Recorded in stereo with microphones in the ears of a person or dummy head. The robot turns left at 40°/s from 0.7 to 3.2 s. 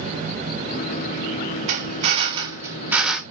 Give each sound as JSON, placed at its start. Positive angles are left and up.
{"t": 1.7, "sound": "a drill", "azimuth_deg": -125, "distance_m": 1.6}